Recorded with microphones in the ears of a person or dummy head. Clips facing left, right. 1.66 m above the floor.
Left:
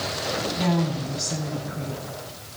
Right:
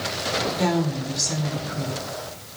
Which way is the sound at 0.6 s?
75° right (ahead or behind).